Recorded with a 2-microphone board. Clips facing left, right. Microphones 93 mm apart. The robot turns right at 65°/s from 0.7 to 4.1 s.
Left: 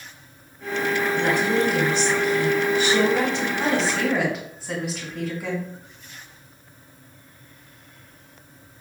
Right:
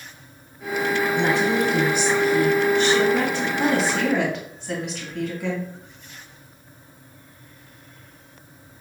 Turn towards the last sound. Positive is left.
turn(degrees=5)  # may be behind; listen again after turning